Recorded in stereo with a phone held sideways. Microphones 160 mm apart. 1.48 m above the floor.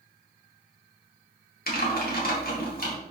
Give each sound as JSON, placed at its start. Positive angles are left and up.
{"t": 1.7, "sound": "typing on a keyboard", "side_deg": 65, "distance_m": 2.0}